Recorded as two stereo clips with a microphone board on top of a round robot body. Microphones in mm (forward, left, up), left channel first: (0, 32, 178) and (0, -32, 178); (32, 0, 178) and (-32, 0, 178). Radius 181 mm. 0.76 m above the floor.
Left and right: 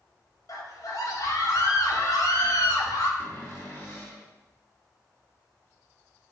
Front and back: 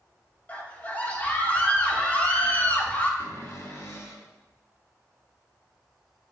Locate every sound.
0.5 s a scream: 65° left, 3 m
3.2 s a cupboard door: 40° left, 3.5 m